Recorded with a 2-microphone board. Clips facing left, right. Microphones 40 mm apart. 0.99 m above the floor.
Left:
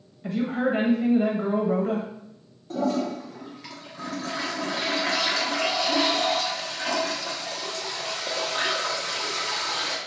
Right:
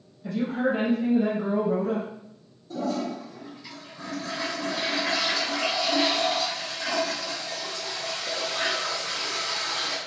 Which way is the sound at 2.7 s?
50° left (ahead or behind).